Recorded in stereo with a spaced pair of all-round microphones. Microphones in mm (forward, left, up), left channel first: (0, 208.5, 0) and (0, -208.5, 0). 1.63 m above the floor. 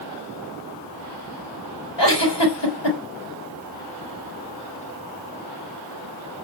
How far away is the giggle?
About 3.5 m.